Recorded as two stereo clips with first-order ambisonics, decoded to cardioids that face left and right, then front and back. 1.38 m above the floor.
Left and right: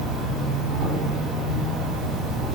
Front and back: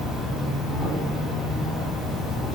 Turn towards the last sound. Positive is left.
turn(degrees=-100)